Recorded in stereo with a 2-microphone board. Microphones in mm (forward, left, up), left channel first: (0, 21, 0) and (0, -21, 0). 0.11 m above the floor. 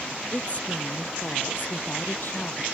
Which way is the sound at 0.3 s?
30° left (ahead or behind).